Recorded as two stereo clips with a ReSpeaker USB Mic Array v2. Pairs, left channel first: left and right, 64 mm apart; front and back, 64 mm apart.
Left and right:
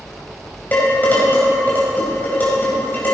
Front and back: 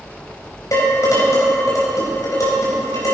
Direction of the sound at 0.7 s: 30° left.